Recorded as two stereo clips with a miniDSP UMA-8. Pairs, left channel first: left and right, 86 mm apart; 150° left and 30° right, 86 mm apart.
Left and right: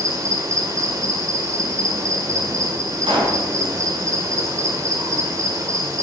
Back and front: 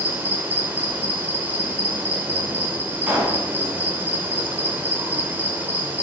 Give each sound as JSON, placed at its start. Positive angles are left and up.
{"t": 0.0, "sound": "an insect", "azimuth_deg": -85, "distance_m": 1.9}
{"t": 3.1, "sound": "a pop", "azimuth_deg": -105, "distance_m": 4.0}